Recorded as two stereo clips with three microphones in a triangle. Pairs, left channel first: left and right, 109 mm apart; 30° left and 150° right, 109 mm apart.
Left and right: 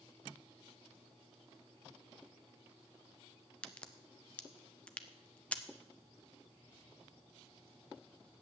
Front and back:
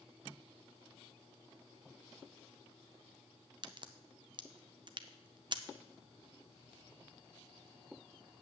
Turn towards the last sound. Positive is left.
turn(degrees=170)